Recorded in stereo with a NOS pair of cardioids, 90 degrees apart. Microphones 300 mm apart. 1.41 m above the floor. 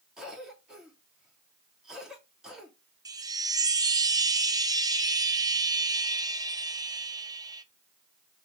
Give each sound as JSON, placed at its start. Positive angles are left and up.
{"t": 0.2, "sound": "a cough", "azimuth_deg": 0, "distance_m": 2.5}
{"t": 3.0, "sound": "a chime", "azimuth_deg": -15, "distance_m": 0.5}